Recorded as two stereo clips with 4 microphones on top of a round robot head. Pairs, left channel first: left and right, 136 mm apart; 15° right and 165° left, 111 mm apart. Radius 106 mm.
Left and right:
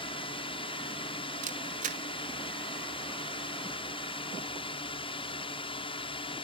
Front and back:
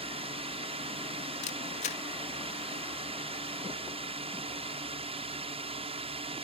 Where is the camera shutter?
50° right.